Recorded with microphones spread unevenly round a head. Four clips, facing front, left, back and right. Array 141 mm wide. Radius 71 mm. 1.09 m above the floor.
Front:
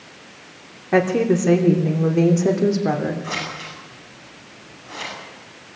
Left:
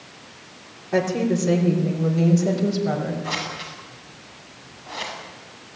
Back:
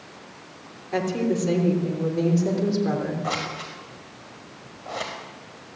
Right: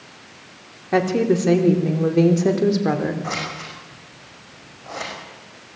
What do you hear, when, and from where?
0.9 s a woman speaking: 30° right, 3 m; by 3.1 s 55° right, 3.5 m
3.2 s scissors: 160° right, 5 m